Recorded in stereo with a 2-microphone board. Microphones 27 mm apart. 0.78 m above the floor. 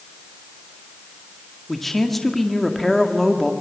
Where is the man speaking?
5° left (ahead or behind), 1.8 m.